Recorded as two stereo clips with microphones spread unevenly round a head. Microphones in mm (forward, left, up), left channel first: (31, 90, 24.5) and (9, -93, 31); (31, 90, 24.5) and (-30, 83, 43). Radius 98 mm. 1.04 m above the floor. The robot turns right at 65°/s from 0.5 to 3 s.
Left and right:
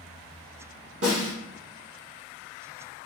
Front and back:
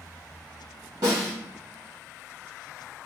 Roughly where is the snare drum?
Behind right.